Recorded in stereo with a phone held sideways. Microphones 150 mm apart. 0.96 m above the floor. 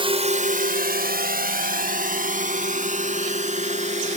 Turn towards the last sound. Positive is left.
turn(degrees=-50)  # may be behind; listen again after turning